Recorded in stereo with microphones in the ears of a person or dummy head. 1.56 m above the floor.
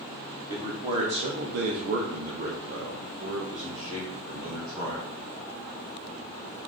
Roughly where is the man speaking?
Centre.